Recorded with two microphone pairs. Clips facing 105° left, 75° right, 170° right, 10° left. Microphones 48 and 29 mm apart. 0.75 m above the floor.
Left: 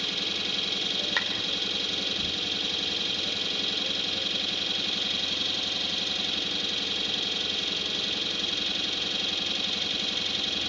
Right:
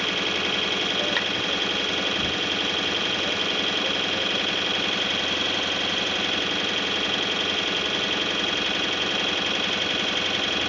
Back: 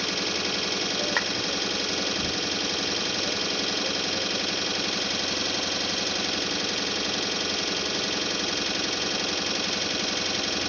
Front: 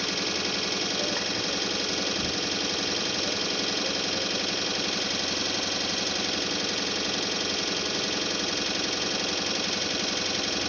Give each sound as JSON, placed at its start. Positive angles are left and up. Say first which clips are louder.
{"t": 0.0, "sound": "an engine running", "louder": "right 7 dB, back 1 dB", "azimuth_deg": -90, "distance_m": 1.1}
{"t": 1.2, "sound": "a clap", "louder": "right 3 dB, back 4 dB", "azimuth_deg": -160, "distance_m": 2.5}